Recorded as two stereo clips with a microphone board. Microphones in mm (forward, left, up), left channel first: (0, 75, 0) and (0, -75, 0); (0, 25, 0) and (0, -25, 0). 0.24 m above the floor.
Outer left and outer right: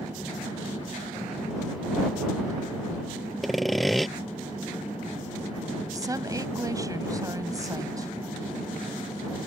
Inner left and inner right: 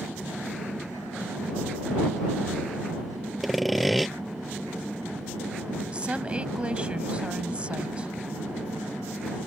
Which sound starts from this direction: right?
A woman speaking, at 5.9 s.